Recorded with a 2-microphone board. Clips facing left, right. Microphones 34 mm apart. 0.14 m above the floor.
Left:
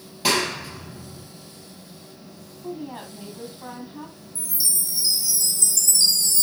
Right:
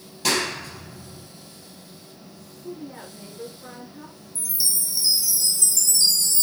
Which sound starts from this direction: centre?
A clap, at 0.2 s.